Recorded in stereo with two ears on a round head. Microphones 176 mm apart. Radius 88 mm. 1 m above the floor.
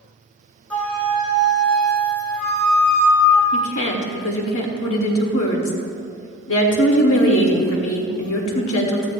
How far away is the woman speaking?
About 1.9 m.